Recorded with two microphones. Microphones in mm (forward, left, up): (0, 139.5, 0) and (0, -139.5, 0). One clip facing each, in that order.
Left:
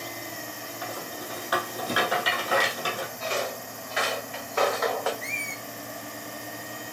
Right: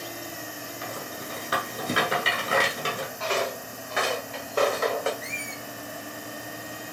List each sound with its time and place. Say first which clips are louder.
0.8 s a rattle: left 1 dB; 25° right (ahead or behind), 1.2 m
3.2 s footsteps: right 3 dB; 80° right, 1.2 m; by 5.1 s 25° right (ahead or behind), 1.3 m
5.2 s a squeak: right 1 dB; 10° right (ahead or behind), 1.2 m